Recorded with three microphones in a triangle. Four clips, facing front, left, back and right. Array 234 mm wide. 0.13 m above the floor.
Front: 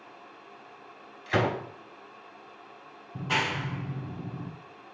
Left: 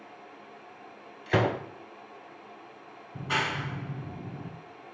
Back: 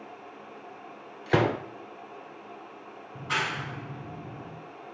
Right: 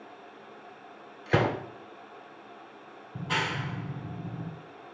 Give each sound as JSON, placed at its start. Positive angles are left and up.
{"t": 1.3, "sound": "a gunshot", "azimuth_deg": -150, "distance_m": 1.6}
{"t": 3.1, "sound": "a clap", "azimuth_deg": -40, "distance_m": 1.2}